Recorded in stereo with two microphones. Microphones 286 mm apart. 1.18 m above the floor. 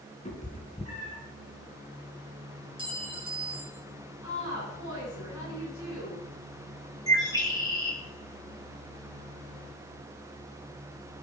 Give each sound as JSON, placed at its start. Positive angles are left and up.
{"t": 0.2, "sound": "a cat meowing", "side_deg": 25, "distance_m": 3.5}
{"t": 2.8, "sound": "a clink", "side_deg": -15, "distance_m": 2.5}
{"t": 4.2, "sound": "a woman speaking", "side_deg": 80, "distance_m": 9.0}
{"t": 7.1, "sound": "a bird", "side_deg": 10, "distance_m": 2.5}